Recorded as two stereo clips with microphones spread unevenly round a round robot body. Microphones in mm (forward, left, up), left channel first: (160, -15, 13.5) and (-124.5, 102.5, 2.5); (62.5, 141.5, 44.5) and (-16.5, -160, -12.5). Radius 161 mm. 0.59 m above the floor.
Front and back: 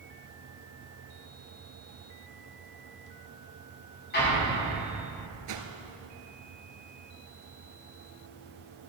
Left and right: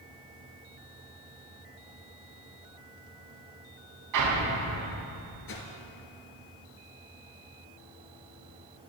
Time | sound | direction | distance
4.1 | an explosion | 85° right | 5 m
5.5 | a whoosh | 125° left | 1.9 m